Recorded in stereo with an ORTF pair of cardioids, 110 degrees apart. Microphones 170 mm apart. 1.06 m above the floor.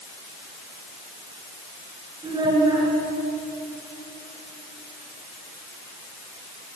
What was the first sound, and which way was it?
A child speaking, 25° right.